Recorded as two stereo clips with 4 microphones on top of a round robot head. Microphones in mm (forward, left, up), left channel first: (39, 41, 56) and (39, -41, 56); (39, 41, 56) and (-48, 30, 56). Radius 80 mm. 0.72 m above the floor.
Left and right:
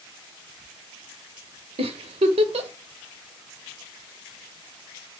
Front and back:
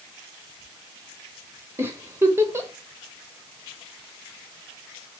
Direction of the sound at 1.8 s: 105° right.